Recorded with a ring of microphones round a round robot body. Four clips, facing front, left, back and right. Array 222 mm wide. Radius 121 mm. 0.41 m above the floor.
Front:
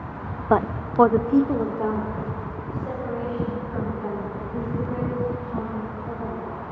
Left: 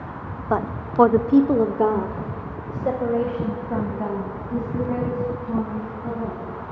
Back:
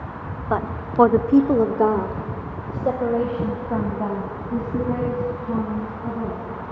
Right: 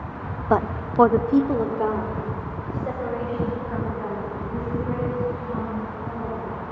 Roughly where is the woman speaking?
Ahead right.